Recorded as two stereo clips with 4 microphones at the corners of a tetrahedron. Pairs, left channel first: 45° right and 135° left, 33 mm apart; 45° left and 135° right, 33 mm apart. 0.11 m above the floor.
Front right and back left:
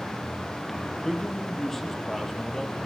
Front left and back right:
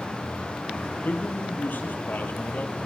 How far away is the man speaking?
About 3.5 m.